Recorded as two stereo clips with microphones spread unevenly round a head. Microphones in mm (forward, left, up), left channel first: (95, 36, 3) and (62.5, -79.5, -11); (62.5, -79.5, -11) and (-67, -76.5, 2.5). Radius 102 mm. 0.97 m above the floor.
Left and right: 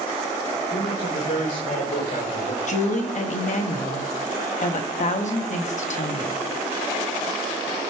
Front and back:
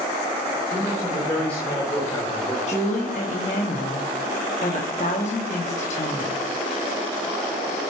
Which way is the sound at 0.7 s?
80° left.